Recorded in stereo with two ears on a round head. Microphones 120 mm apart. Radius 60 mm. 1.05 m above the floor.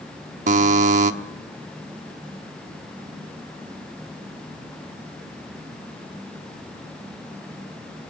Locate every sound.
0.5 s a buzzer: 60° right (ahead or behind), 1.1 m